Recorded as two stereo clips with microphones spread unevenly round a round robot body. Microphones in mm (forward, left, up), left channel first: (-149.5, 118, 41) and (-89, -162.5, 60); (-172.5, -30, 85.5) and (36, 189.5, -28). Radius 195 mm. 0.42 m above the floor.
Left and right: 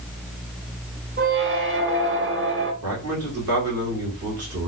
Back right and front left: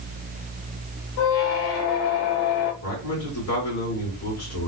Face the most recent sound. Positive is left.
turn(degrees=-75)